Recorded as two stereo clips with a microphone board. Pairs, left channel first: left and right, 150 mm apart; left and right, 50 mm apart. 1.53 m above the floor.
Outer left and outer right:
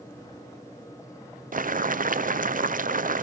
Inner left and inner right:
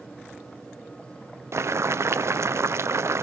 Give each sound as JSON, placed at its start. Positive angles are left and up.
{"t": 1.5, "sound": "boiling", "side_deg": -65, "distance_m": 0.5}